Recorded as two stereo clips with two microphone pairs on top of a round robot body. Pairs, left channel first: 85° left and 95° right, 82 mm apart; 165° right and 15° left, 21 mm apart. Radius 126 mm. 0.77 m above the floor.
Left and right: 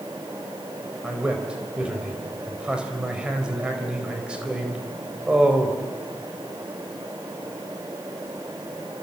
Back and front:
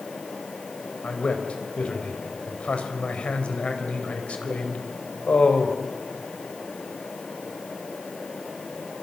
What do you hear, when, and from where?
1.0 s a man speaking: 170° right, 4.5 m